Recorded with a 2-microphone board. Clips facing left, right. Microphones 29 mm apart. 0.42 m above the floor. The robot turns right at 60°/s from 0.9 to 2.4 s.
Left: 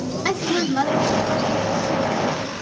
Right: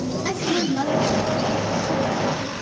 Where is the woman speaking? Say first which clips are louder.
Left 2 dB; 140° left, 3 m; by 2.5 s 130° right, 3 m.